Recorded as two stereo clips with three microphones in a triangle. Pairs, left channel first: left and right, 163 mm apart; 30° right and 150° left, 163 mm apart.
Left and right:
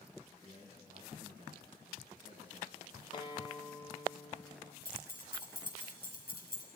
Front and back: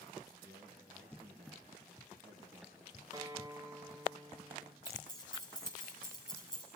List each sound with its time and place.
0.4 s a man speaking: 135° right, 3 m
3.1 s a guitar: 110° left, 1.0 m
4.8 s keys jangling: 95° right, 5 m